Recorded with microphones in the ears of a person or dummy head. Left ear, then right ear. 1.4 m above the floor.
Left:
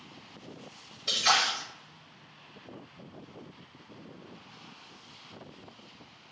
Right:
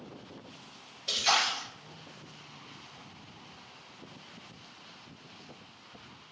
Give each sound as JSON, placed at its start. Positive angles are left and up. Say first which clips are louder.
{"t": 1.1, "sound": "a splash", "louder": "left 2 dB", "side_deg": 40, "distance_m": 1.5}